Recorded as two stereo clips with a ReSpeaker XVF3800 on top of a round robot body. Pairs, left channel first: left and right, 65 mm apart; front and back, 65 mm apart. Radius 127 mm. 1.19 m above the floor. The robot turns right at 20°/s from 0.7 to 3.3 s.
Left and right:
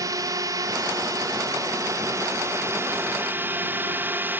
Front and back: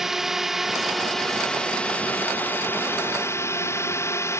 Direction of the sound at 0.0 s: 95° right.